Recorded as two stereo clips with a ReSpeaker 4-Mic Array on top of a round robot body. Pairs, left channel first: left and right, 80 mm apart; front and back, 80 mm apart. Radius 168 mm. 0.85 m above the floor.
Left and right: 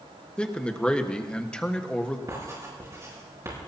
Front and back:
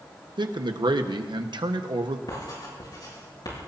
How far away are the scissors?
I don't hear scissors.